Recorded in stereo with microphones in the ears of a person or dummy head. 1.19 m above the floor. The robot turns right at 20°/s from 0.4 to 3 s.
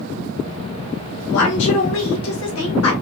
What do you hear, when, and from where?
1.3 s a woman speaking: 60° left, 1.2 m; by 2.9 s 95° left, 1.2 m